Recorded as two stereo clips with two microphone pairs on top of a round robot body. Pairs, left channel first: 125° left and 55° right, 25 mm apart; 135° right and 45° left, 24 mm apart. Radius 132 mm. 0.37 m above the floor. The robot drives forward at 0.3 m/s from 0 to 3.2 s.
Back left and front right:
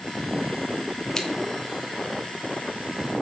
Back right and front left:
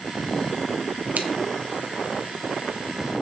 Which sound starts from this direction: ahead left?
Scissors, at 1.1 s.